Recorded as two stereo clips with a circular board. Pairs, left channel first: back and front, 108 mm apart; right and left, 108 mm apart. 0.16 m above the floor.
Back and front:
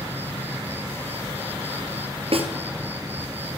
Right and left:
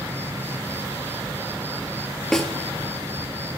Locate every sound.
0.0 s an insect: 50° left, 2.5 m
2.3 s a snare drum: 5° right, 3 m